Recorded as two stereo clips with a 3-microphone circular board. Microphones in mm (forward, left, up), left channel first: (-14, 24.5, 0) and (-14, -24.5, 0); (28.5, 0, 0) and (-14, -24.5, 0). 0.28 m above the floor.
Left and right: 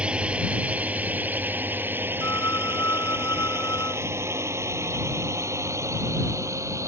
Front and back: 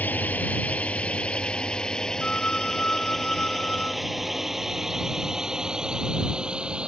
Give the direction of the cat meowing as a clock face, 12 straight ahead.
No cat meowing in this recording.